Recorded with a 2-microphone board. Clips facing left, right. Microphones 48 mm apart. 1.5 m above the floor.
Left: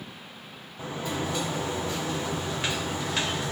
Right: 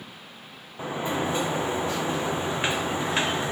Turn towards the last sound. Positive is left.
turn(degrees=-25)  # may be behind; listen again after turning